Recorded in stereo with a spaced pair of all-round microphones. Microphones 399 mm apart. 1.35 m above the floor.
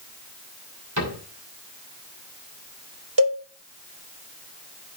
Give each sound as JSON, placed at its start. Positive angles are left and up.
{"t": 1.0, "sound": "a cupboard door", "side_deg": -45, "distance_m": 5.0}
{"t": 3.2, "sound": "a cowbell", "side_deg": -55, "distance_m": 1.2}